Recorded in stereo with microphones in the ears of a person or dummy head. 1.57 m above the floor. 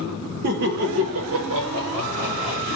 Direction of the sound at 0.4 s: 45° right (ahead or behind).